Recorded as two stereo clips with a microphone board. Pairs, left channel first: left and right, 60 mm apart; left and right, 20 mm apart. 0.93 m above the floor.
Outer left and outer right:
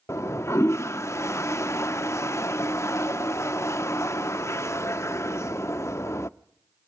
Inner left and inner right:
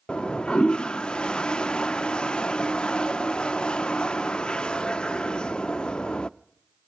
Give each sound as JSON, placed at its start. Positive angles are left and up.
{"t": 0.1, "sound": "a toilet flushing", "side_deg": 50, "distance_m": 0.6}